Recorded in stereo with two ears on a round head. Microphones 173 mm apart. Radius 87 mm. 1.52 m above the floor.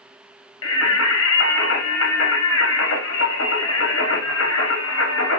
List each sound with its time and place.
0.6 s singing: 75° left (ahead or behind), 1.2 m